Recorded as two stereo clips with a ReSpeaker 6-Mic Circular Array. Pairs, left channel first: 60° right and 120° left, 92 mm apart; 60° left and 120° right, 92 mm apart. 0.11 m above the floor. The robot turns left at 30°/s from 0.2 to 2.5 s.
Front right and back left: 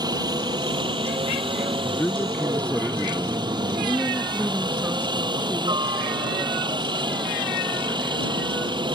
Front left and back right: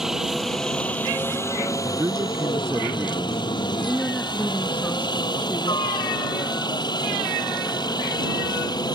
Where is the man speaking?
105° right; by 3.4 s 125° right.